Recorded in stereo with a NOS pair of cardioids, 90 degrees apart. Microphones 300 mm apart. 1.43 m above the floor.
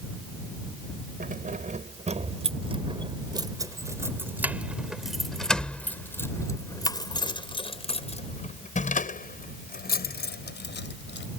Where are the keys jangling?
30° right; by 11.3 s 40° left.